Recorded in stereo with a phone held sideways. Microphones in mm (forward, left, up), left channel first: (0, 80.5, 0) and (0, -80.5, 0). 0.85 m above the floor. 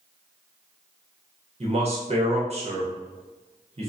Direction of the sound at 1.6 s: 40° right (ahead or behind).